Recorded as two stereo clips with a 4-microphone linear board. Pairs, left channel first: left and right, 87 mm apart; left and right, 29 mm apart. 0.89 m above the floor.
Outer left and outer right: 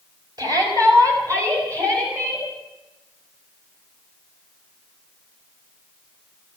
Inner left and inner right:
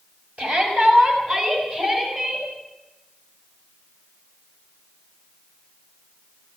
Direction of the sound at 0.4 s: 50° right (ahead or behind).